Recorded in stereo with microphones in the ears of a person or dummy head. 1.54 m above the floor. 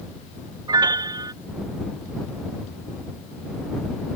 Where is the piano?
15° right (ahead or behind).